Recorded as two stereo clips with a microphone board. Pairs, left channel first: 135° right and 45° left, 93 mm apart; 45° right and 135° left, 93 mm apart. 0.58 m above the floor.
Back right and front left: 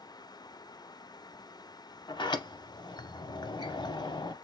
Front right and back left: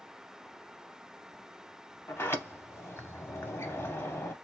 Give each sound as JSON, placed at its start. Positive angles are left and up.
{"t": 2.1, "sound": "a sliding door", "azimuth_deg": -105, "distance_m": 0.6}